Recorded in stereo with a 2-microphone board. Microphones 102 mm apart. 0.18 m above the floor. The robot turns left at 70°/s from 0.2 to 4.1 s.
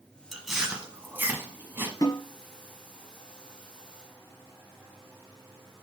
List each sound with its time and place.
0.3 s chewing: centre (ahead or behind), 1.5 m; by 1.9 s 20° right (ahead or behind), 1.5 m
2.0 s a snare drum: 40° left (ahead or behind), 2.5 m; by 2.2 s 30° left (ahead or behind), 2.5 m